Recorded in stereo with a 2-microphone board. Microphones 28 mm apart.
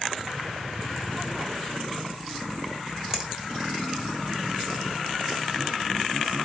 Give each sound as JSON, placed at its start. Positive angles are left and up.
{"t": 3.1, "sound": "a finger snap", "side_deg": -20, "distance_m": 1.4}